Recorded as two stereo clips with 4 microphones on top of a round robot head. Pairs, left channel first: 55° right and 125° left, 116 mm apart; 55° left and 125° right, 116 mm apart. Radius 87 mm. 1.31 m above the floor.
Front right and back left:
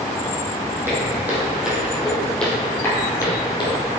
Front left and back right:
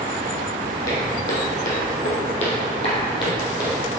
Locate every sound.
0.9 s footsteps: 55° left, 2.5 m; by 3.7 s 5° right, 2.5 m